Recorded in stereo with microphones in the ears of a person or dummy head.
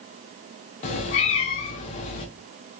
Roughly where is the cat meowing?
Left.